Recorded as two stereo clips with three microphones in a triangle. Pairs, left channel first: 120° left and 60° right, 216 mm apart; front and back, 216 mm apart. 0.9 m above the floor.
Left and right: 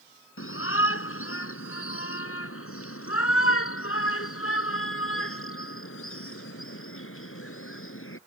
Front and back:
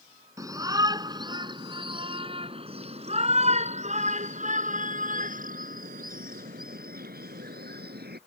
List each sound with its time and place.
0.4 s a shout: 105° left; by 8.2 s 140° left